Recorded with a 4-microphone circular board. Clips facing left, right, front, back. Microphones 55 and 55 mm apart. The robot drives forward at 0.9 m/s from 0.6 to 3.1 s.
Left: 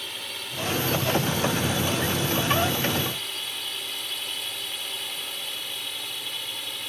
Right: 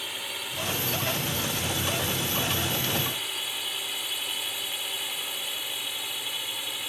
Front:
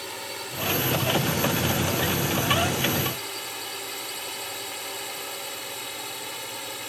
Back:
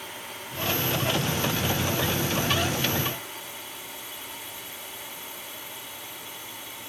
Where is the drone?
5° right.